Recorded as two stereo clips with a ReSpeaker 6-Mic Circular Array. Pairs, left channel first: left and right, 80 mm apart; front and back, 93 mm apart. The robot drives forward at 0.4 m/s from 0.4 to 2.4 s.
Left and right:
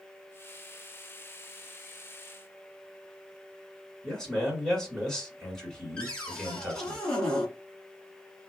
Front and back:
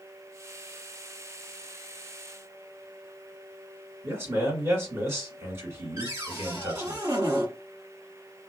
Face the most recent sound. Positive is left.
turn(degrees=160)